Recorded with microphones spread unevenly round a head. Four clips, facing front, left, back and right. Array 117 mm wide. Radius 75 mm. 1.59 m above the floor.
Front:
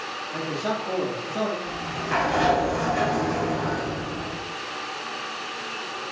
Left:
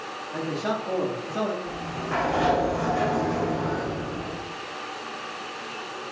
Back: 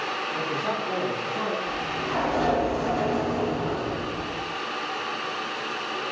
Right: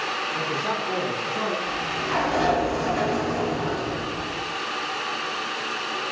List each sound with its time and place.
0.3 s a man speaking: 40° left, 4.5 m; by 1.6 s 30° left, 4.5 m
1.7 s a sliding door: 15° right, 5.5 m